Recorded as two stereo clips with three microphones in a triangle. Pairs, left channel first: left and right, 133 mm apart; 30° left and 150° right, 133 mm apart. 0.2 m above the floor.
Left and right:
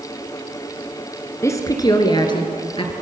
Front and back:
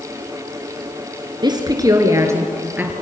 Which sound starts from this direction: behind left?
A woman speaking, at 1.4 s.